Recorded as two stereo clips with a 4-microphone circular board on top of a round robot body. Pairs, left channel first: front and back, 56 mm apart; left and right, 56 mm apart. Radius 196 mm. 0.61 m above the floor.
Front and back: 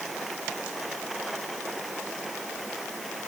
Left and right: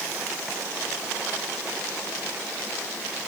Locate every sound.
Only background noise.